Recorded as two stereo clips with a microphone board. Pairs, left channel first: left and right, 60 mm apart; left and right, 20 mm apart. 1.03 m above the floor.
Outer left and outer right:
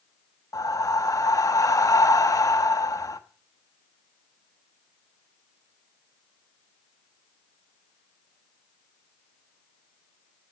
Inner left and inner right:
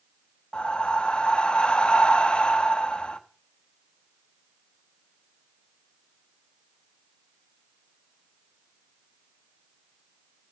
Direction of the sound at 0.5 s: 70° left (ahead or behind).